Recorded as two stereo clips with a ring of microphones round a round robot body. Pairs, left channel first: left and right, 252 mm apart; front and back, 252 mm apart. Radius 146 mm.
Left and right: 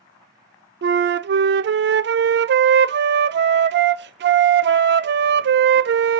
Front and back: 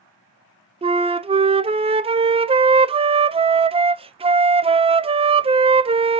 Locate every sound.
0.8 s a flute: 120° right, 0.6 m